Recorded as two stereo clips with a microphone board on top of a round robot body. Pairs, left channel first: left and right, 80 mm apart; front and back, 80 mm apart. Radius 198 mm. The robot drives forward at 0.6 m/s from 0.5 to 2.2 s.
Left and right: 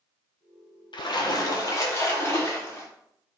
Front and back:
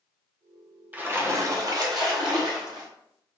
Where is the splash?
110° left, 0.7 m; by 2.9 s 145° left, 1.2 m.